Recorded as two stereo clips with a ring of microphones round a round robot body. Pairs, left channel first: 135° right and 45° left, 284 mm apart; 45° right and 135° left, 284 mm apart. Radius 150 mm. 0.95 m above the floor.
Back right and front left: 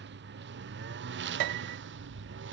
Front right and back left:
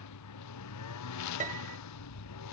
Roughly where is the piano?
Left.